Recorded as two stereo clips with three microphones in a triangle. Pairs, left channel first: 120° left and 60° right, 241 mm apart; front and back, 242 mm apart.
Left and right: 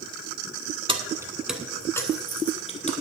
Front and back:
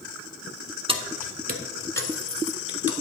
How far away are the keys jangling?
About 1.1 m.